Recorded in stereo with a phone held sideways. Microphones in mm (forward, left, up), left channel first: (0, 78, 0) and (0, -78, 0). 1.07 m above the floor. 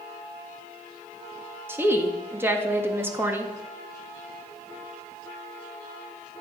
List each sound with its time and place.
1.7 s a woman speaking: 15° right (ahead or behind), 1.7 m